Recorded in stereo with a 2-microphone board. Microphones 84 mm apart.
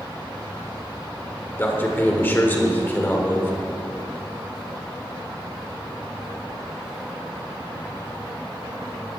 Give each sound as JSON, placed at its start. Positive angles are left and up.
{"t": 1.6, "sound": "a man speaking", "side_deg": 25, "distance_m": 1.8}